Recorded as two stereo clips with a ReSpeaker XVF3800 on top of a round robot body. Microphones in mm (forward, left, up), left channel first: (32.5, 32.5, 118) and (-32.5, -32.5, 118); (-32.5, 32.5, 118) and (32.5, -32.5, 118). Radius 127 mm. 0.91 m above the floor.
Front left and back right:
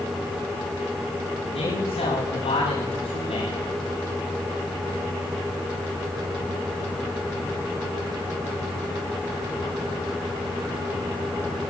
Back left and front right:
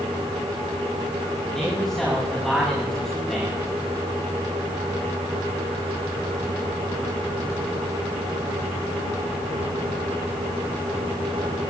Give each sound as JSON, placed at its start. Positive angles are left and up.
{"t": 1.5, "sound": "a man speaking", "azimuth_deg": 45, "distance_m": 8.0}